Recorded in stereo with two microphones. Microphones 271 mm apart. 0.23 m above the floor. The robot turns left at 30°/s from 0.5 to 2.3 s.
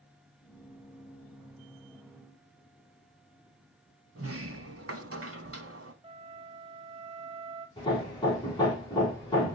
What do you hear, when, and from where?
4.2 s a sliding door: 55° right (ahead or behind), 0.8 m
6.0 s a flute: 20° right (ahead or behind), 0.8 m
7.8 s hammering: 15° left (ahead or behind), 3.5 m